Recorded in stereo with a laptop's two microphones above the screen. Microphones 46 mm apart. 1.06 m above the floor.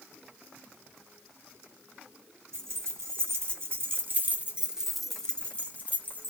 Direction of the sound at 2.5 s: 75° right (ahead or behind).